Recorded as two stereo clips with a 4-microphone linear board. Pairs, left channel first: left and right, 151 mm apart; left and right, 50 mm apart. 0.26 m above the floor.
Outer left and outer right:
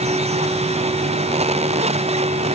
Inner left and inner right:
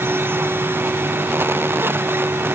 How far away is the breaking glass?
I don't hear breaking glass.